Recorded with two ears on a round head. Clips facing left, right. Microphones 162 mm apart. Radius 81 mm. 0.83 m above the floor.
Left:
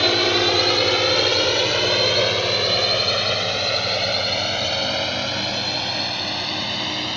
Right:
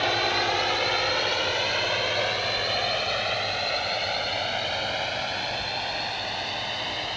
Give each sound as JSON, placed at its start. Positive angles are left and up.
{"t": 0.0, "sound": "a drone", "side_deg": 50}